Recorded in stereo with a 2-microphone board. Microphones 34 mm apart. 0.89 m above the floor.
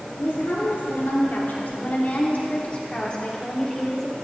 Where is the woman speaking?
75° left (ahead or behind), 3.5 m; by 4.1 s 10° left (ahead or behind), 4 m.